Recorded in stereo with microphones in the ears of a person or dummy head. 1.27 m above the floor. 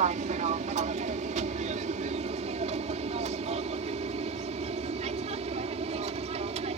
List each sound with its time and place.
0.0 s an aircraft: 35° right (ahead or behind)